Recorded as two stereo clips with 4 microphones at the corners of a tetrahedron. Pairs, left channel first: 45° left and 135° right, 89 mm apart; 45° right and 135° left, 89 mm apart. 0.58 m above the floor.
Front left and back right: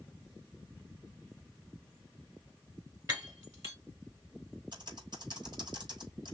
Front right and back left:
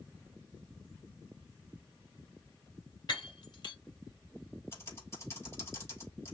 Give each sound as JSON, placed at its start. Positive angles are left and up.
{"t": 3.1, "sound": "breaking glass", "azimuth_deg": -80, "distance_m": 3.0}
{"t": 4.7, "sound": "typing on a keyboard", "azimuth_deg": -100, "distance_m": 3.0}